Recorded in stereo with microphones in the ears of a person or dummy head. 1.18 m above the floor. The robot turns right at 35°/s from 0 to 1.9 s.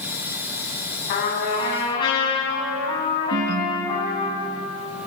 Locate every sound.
1.1 s a trumpet: 50° left (ahead or behind), 8.5 m; by 4.3 s 20° left (ahead or behind), 8.5 m
3.3 s a ringtone: 50° right (ahead or behind), 0.7 m